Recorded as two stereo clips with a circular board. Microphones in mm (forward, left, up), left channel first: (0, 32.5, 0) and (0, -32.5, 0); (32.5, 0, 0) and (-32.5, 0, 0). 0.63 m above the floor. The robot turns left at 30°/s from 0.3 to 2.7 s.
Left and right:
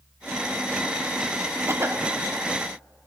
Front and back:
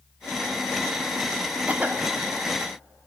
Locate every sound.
1.7 s a cough: 120° right, 1.4 m; by 2.1 s 130° right, 1.4 m